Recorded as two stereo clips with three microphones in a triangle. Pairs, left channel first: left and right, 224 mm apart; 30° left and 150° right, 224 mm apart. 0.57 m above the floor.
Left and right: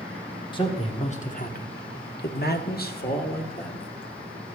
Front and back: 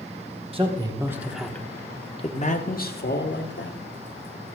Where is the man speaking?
155° left, 1.3 m; by 3.8 s 45° left, 1.8 m.